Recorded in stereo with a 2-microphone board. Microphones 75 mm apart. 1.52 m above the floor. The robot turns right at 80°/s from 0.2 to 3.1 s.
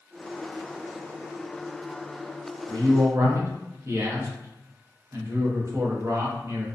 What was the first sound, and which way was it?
A man speaking, 70° right.